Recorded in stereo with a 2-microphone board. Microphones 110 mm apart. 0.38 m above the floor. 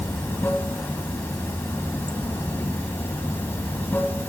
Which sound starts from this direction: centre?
Running water, at 0.0 s.